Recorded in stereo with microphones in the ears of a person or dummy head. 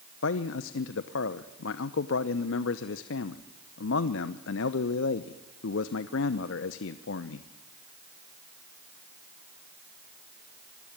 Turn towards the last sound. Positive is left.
turn(degrees=75)  # may be behind; listen again after turning